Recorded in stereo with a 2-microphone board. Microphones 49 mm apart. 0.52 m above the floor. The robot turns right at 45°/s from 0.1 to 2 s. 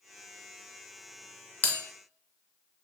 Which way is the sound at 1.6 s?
35° left (ahead or behind).